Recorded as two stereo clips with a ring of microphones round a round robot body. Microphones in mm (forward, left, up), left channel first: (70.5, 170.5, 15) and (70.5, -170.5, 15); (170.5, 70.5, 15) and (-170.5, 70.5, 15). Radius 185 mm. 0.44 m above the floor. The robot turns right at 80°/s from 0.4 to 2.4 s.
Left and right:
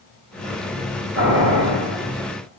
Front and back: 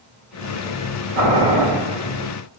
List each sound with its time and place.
1.1 s boiling: 130° right, 1.3 m; by 1.6 s 90° right, 1.3 m